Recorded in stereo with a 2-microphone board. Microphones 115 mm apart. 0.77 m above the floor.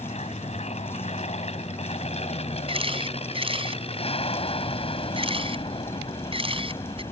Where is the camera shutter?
50° right (ahead or behind).